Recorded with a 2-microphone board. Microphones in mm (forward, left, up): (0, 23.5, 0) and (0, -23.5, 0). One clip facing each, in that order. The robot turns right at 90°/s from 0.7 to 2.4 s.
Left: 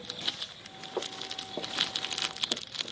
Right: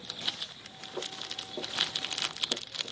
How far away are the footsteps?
About 0.8 m.